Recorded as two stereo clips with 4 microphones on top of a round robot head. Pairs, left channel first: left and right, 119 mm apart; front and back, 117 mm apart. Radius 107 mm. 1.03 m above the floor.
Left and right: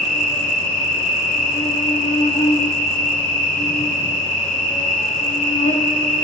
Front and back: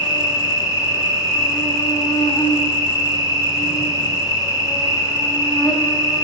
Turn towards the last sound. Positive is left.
turn(degrees=60)